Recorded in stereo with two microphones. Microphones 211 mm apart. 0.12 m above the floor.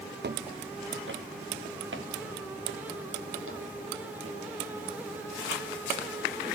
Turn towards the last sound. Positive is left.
turn(degrees=-75)  # may be behind; listen again after turning